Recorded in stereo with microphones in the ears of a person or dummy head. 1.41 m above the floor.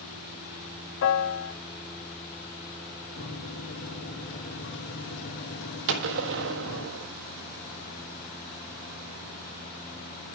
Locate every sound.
1.0 s a piano: 65° left (ahead or behind), 0.9 m
3.2 s a microwave: 60° left (ahead or behind), 1.6 m
5.9 s a gunshot: 65° right (ahead or behind), 1.4 m